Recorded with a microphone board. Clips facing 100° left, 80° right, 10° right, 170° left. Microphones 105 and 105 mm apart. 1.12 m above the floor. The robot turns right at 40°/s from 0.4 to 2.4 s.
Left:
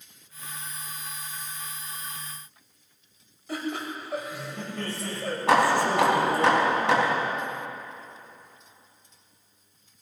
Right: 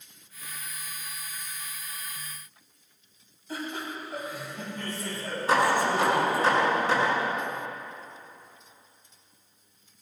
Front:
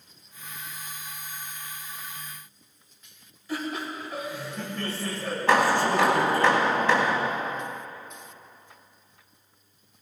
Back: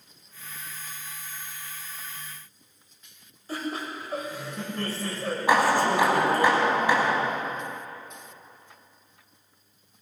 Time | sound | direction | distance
3.5 | laughter | 120° left | 6.5 m
5.5 | hammering | 90° left | 4.5 m